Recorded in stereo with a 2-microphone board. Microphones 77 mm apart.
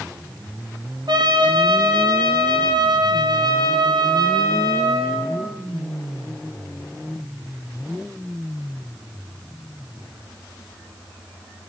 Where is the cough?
No cough in this recording.